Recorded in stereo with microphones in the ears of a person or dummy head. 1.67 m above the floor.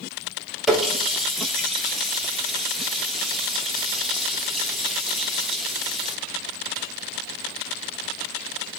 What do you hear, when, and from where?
0.7 s a running tap: centre (ahead or behind), 2.5 m